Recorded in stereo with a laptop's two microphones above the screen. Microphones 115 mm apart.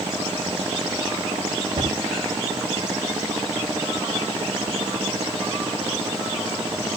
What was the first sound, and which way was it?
A cupboard door, 50° right (ahead or behind).